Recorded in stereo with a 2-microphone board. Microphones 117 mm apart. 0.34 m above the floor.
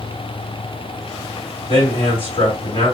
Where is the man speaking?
55° left (ahead or behind), 2 m.